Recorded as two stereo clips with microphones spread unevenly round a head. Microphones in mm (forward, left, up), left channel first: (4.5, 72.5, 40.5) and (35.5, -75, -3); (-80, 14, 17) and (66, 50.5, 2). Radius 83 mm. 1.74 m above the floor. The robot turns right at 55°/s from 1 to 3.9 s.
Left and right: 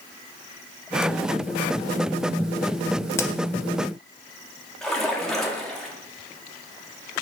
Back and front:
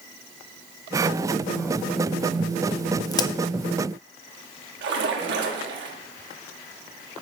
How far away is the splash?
About 1.5 m.